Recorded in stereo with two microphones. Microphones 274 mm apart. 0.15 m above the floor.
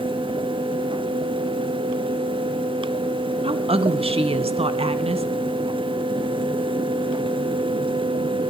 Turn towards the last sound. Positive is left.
turn(degrees=-20)  # may be behind; listen again after turning